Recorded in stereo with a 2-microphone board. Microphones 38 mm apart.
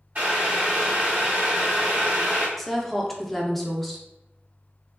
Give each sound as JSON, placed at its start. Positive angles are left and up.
{"t": 0.1, "sound": "boiling", "side_deg": -45, "distance_m": 1.2}
{"t": 2.6, "sound": "a woman speaking", "side_deg": 5, "distance_m": 0.6}